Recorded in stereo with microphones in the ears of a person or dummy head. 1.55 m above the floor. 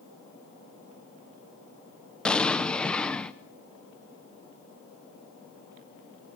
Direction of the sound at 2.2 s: 5° left (ahead or behind).